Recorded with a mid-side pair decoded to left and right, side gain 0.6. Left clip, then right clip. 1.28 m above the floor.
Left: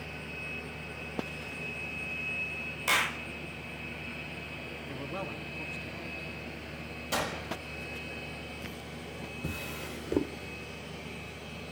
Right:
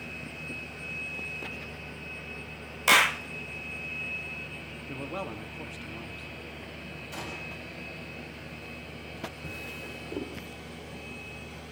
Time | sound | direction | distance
2.9 | a clap | 40° right | 0.6 m
4.9 | a man speaking | 20° right | 3 m
7.1 | a gunshot | 60° left | 5.5 m
9.4 | a drawer | 40° left | 2 m